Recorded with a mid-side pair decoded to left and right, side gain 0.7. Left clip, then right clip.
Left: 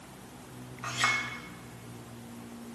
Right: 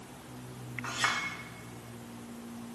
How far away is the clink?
About 4 m.